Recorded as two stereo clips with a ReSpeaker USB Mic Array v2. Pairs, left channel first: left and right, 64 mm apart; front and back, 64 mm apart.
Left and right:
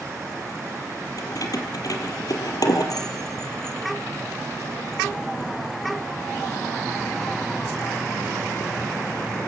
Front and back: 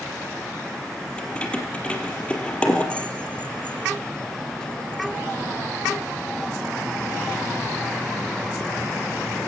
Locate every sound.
1.2 s keys jangling: 70° left, 3.5 m